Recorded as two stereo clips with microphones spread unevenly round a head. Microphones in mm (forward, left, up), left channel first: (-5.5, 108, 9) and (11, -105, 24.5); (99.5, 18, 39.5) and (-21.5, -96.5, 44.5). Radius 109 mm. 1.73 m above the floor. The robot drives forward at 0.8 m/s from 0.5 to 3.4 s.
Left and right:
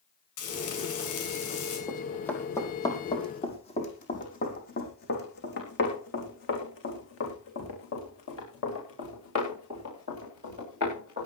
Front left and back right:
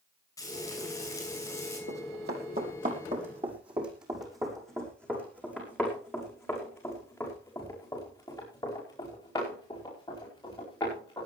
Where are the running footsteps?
175° right, 4.5 m; by 11.3 s 115° left, 14 m.